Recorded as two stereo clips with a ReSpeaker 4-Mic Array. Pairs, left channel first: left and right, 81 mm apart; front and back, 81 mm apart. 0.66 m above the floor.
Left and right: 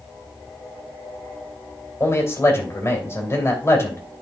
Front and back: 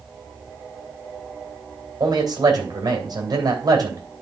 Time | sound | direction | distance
2.0 | a man speaking | 145° left | 2.5 m